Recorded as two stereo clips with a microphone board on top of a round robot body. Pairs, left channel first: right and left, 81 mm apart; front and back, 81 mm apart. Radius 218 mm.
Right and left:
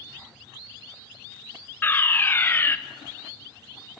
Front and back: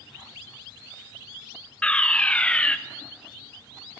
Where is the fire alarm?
60° right, 1.7 m.